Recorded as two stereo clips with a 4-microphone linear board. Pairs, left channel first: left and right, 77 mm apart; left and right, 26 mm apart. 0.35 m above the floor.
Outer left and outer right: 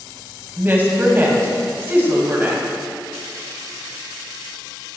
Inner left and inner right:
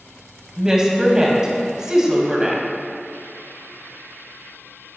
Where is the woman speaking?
30° right (ahead or behind), 2 m.